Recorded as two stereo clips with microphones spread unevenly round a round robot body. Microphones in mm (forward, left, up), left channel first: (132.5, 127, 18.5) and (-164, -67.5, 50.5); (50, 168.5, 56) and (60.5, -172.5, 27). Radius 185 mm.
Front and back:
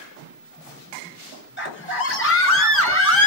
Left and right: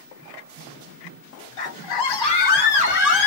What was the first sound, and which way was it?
A scream, 85° left.